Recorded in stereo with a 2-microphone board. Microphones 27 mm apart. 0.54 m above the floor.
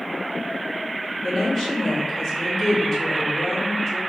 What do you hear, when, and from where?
1.2 s a woman speaking: 5° left (ahead or behind), 1.7 m